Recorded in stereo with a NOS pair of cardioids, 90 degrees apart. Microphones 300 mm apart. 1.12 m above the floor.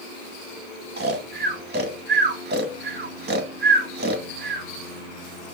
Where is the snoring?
35° right, 1.9 m.